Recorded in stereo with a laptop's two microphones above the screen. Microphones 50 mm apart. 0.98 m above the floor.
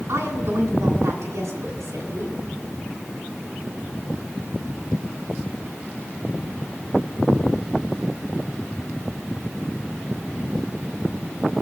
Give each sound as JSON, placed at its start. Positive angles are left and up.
{"t": 0.1, "sound": "a woman speaking", "side_deg": -85, "distance_m": 8.5}